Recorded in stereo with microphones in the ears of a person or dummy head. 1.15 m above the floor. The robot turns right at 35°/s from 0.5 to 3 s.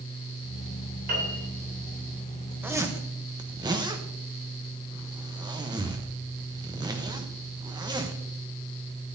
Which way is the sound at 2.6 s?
5° right (ahead or behind).